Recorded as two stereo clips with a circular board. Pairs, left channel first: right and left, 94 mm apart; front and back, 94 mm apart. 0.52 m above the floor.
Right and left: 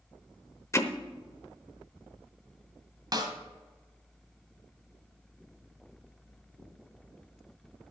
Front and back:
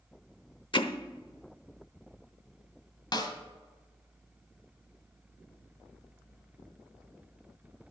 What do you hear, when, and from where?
0.7 s hammering: 30° right, 0.9 m
3.1 s a snare drum: 45° left, 1.5 m